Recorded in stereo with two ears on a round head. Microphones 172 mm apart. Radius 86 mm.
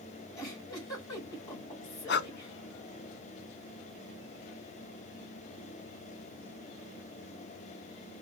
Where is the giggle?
15° left (ahead or behind), 1.7 m.